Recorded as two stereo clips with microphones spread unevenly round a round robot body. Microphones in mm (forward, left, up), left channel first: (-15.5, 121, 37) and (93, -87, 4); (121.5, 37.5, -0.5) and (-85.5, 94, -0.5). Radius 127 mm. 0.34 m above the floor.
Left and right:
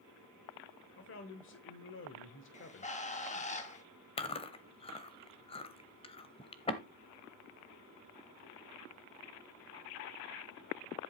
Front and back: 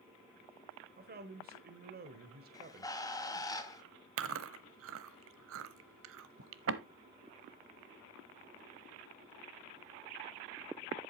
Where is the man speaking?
140° left, 1.1 m.